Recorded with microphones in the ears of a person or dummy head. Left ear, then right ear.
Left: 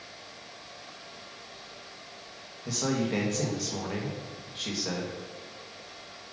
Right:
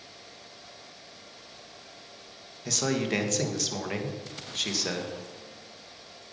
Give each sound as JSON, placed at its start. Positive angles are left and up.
{"t": 2.6, "sound": "a man speaking", "side_deg": -70, "distance_m": 1.4}